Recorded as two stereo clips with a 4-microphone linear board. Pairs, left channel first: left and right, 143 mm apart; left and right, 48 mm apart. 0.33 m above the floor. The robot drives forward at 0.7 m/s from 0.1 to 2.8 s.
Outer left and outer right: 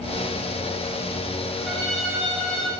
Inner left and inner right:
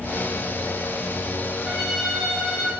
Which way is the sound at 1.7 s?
5° left (ahead or behind).